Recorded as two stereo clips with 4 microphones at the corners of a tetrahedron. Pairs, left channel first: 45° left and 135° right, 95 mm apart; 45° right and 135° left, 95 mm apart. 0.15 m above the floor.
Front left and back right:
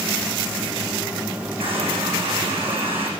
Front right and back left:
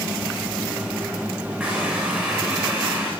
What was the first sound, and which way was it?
A running tap, 145° right.